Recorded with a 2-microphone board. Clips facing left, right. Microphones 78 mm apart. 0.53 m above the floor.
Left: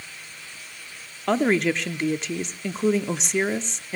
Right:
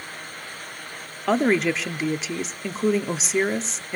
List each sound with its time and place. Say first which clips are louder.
1.3 s a woman speaking: right 1 dB; 5° right (ahead or behind), 0.7 m